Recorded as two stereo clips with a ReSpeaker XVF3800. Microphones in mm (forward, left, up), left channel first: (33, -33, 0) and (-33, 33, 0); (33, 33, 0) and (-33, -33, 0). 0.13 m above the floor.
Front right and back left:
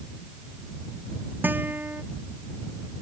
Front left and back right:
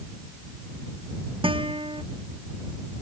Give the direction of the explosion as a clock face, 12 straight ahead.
I don't hear an explosion.